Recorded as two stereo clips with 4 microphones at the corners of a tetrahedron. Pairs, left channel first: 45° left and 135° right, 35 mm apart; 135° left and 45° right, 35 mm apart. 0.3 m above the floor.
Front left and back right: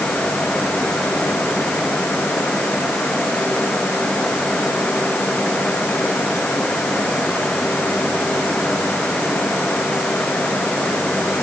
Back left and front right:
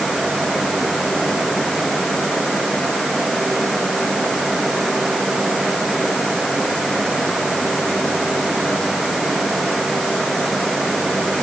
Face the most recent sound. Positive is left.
No sound to turn to.